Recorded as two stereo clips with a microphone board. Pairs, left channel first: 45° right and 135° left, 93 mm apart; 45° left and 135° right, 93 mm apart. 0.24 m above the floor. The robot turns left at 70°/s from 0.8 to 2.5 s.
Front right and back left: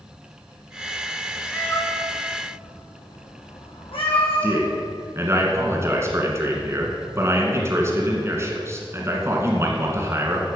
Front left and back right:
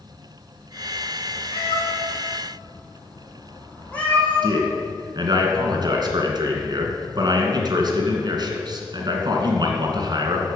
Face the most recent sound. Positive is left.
turn(degrees=-170)